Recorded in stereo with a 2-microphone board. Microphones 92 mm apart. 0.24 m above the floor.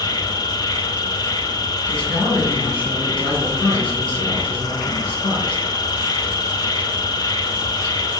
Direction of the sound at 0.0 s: 50° left (ahead or behind).